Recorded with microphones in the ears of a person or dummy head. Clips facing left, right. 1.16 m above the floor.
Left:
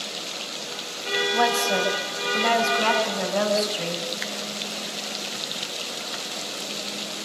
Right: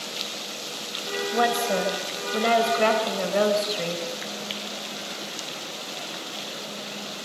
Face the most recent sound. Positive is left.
turn(degrees=-35)  # may be behind; listen again after turning